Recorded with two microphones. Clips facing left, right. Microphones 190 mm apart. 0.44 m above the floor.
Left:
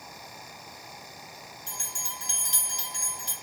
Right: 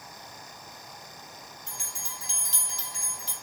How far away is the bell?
About 1.4 m.